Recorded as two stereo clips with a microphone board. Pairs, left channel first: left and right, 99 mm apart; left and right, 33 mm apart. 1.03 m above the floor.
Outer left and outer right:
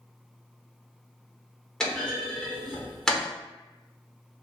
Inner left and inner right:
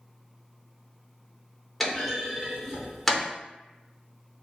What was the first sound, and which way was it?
A clunk, 5° left (ahead or behind).